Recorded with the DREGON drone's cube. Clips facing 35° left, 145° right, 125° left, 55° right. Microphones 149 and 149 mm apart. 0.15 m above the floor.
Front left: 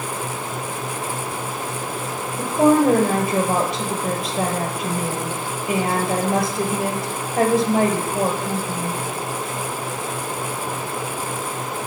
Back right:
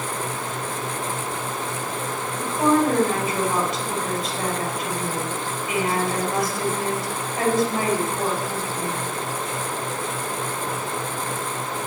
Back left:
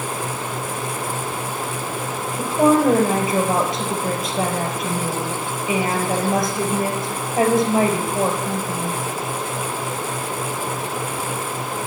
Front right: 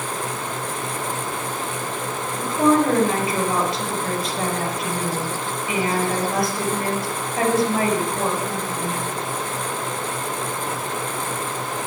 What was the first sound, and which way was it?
A woman speaking, 60° left.